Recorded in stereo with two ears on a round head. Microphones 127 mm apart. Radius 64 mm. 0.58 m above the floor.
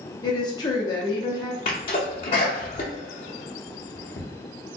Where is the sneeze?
40° left (ahead or behind), 0.7 m.